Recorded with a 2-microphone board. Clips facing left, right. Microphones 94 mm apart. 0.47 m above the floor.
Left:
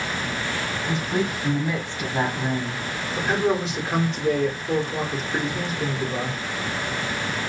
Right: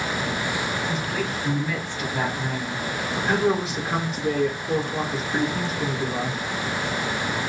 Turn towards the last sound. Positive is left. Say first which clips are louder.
# even
turn(degrees=-5)  # may be behind; listen again after turning